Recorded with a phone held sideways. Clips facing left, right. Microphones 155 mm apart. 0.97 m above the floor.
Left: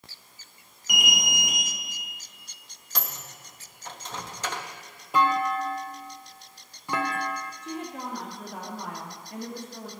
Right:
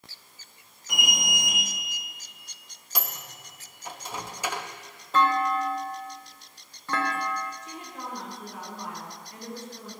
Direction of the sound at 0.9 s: 15° left (ahead or behind).